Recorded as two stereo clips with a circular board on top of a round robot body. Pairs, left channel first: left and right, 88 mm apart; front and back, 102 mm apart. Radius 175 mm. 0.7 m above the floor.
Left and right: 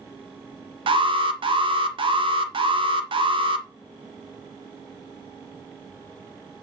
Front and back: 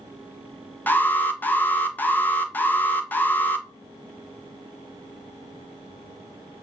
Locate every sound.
0.9 s an alarm: 70° right, 1.4 m